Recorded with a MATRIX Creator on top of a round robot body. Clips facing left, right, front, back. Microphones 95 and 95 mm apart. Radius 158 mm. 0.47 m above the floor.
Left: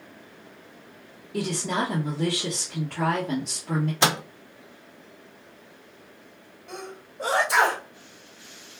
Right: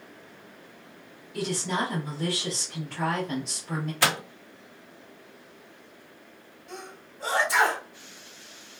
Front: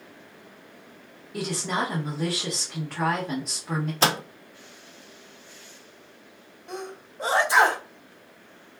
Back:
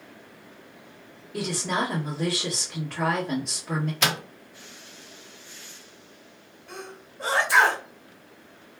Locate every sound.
1.3 s a woman speaking: 85° left, 1.8 m
4.0 s a microwave: 35° left, 0.6 m
6.7 s a sneeze: 70° left, 2 m